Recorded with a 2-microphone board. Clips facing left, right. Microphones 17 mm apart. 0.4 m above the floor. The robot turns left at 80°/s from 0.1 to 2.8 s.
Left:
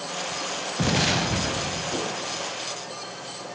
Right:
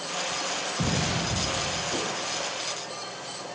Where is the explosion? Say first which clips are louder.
Left 7 dB; 155° left, 0.6 m; by 2.0 s 55° left, 0.6 m.